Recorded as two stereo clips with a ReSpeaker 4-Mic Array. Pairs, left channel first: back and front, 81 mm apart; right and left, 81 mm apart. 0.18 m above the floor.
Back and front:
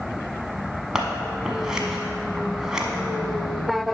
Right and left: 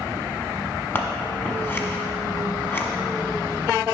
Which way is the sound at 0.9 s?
70° right.